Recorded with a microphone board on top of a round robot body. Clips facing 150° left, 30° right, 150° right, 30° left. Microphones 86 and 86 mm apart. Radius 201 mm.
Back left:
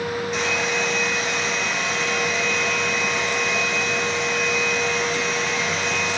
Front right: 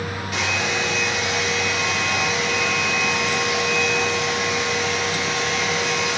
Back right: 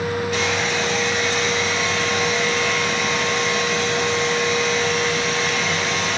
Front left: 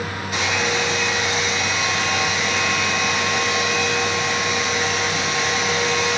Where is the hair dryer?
40° right, 7.5 m.